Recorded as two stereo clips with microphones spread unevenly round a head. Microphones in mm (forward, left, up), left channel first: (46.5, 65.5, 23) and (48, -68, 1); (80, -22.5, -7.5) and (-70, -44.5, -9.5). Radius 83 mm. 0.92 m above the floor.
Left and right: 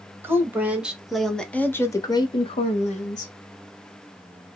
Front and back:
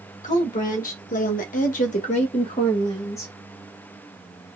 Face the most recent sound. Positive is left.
turn(degrees=80)